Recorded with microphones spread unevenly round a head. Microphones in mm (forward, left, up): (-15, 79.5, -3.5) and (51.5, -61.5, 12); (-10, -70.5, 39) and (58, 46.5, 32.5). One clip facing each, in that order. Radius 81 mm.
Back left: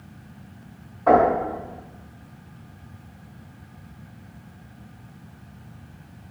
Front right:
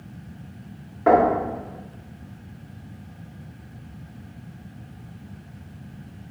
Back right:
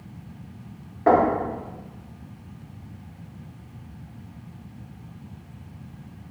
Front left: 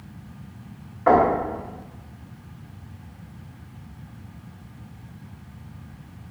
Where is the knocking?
70° right, 1.6 m.